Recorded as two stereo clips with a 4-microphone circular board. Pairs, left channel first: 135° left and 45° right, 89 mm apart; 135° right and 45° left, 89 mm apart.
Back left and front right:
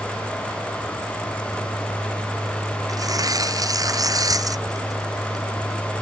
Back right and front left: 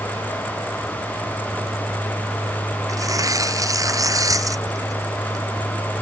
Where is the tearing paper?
Straight ahead.